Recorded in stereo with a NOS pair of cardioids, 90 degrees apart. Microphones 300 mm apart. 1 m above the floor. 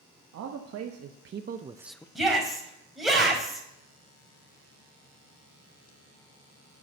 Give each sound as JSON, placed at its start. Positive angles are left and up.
{"t": 0.3, "sound": "a man speaking", "azimuth_deg": -65, "distance_m": 1.2}
{"t": 2.1, "sound": "a shout", "azimuth_deg": 0, "distance_m": 4.5}